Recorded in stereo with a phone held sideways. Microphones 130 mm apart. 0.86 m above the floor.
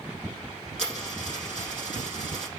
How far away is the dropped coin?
About 4 m.